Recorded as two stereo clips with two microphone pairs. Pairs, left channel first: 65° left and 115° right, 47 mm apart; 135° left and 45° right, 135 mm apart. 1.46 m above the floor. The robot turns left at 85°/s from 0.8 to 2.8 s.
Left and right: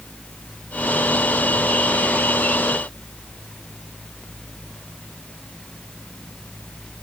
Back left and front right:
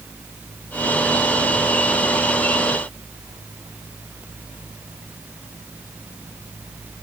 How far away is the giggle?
No giggle in this recording.